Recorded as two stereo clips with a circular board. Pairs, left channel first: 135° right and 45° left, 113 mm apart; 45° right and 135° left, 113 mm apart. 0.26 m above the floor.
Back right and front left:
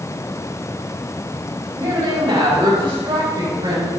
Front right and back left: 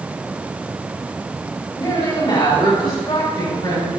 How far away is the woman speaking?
About 4.5 m.